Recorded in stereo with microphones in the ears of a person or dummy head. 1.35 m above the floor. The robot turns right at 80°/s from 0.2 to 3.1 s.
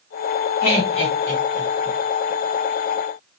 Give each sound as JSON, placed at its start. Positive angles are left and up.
{"t": 0.6, "sound": "laughter", "side_deg": 55, "distance_m": 1.4}